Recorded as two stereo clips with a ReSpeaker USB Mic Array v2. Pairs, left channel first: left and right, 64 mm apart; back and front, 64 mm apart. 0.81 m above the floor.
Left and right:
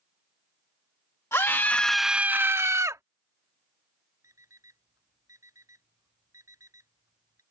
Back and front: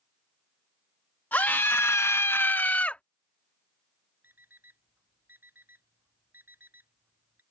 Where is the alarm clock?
55° right.